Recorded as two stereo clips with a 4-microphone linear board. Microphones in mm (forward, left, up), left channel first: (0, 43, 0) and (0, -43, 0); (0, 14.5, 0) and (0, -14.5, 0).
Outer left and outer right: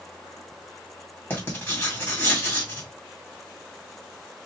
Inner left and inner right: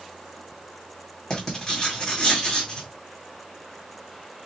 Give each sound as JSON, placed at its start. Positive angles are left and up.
{"t": 1.3, "sound": "writing", "side_deg": 25, "distance_m": 2.5}